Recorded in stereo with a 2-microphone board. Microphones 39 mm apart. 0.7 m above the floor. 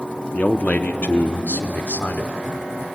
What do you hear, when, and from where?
0.3 s a man speaking: 45° left (ahead or behind), 1.2 m; by 2.3 s 55° left (ahead or behind), 2 m